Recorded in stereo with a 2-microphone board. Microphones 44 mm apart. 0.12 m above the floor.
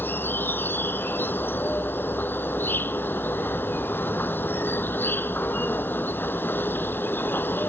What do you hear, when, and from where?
0.0 s an insect: 55° left (ahead or behind)